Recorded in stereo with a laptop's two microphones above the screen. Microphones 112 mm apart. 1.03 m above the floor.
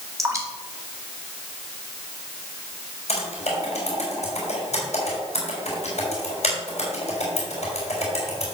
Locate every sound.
0.2 s dripping: 25° right (ahead or behind), 2.5 m
3.1 s typing on a keyboard: 70° left (ahead or behind), 4 m